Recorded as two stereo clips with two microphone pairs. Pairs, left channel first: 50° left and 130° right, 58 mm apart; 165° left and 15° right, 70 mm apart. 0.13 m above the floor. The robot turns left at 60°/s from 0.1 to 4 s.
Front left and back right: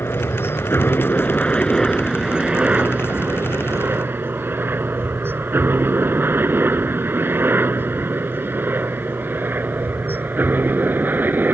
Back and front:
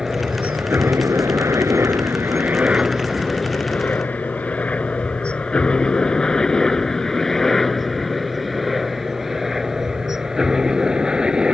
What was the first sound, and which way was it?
A helicopter, 60° left.